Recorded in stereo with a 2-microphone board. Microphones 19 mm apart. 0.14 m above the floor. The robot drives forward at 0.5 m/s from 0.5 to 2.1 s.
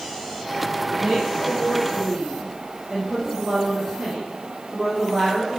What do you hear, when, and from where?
0.9 s a woman speaking: 15° right (ahead or behind), 5.5 m; by 5.6 s 10° right (ahead or behind), 6 m